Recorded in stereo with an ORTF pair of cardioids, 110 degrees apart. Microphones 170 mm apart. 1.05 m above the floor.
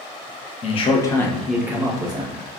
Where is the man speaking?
40° left, 0.8 m; by 2.4 s 30° right, 1.1 m.